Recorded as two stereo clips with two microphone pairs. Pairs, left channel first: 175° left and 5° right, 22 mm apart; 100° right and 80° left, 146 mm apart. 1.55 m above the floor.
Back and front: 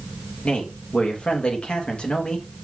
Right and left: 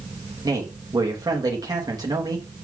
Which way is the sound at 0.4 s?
140° left.